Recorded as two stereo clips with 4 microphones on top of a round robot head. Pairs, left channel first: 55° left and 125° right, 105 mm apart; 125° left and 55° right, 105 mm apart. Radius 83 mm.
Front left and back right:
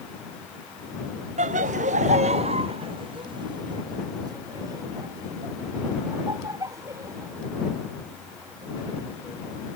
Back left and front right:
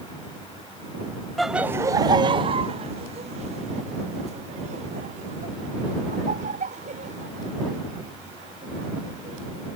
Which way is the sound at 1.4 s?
145° right.